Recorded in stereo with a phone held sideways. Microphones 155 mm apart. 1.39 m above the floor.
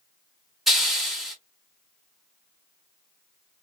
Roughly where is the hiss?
Centre.